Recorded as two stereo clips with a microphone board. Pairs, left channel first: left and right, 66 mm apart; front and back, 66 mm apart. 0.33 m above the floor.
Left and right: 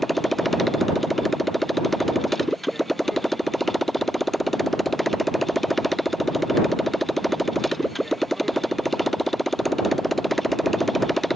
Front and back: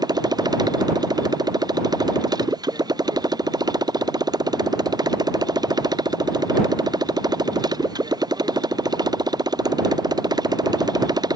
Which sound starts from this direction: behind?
A motorcycle, at 0.0 s.